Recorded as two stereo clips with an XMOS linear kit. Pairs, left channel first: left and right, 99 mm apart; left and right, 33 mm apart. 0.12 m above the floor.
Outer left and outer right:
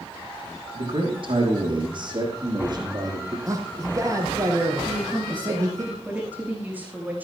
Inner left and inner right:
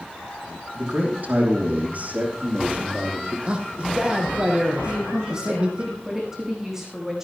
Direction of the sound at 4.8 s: 15° right (ahead or behind).